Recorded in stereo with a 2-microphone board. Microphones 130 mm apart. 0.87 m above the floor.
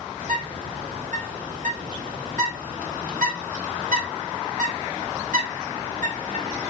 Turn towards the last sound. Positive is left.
turn(degrees=-85)